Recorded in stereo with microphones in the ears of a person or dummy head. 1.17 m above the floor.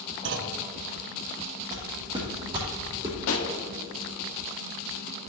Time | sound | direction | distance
0.2 | a clunk | 55° right (ahead or behind) | 0.7 m
1.7 | footsteps | 40° right (ahead or behind) | 2.5 m
3.3 | a pop | 80° left | 1.3 m